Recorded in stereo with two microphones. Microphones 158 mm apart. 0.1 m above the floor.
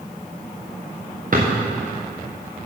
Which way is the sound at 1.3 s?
65° right (ahead or behind).